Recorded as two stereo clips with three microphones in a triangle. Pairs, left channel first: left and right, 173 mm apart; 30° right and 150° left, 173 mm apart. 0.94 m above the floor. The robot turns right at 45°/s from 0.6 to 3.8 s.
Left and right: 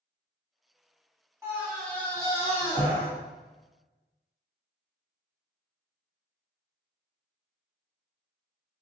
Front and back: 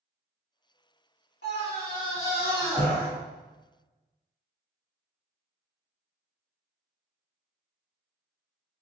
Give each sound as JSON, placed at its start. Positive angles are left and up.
{"t": 1.4, "sound": "a scream", "azimuth_deg": -15, "distance_m": 1.8}